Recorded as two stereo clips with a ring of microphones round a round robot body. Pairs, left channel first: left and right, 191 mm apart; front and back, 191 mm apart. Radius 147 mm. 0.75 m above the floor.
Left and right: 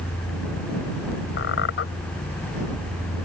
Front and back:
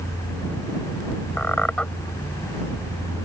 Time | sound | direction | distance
1.4 | a squeak | 85° left | ?